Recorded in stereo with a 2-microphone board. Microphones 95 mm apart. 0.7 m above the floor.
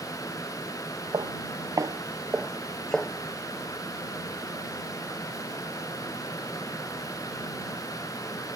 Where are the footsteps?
50° right (ahead or behind); by 3.1 s 15° left (ahead or behind).